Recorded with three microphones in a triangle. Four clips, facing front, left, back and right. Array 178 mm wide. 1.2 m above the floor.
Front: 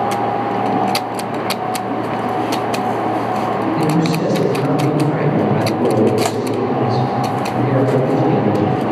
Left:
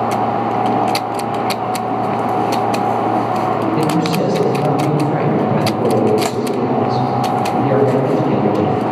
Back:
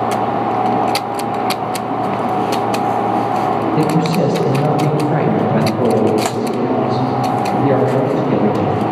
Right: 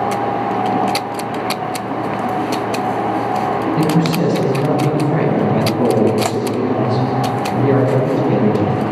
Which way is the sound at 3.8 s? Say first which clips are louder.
Even, back 2 dB; 150° left.